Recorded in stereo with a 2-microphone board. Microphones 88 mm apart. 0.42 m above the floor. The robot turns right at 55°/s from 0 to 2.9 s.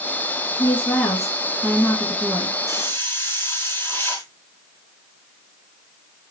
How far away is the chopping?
I don't hear chopping.